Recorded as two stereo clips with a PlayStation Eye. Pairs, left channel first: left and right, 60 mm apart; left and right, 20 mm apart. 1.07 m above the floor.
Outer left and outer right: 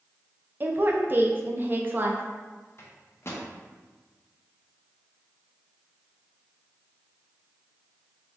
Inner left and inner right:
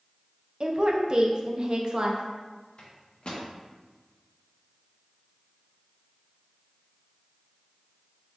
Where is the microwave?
45° left (ahead or behind), 0.7 m.